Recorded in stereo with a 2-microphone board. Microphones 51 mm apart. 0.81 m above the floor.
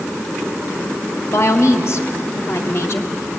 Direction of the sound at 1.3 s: 60° left (ahead or behind).